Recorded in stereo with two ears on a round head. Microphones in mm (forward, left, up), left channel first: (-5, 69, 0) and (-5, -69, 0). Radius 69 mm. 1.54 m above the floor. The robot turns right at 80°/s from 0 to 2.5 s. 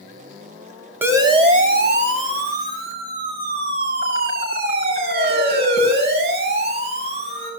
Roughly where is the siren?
Centre.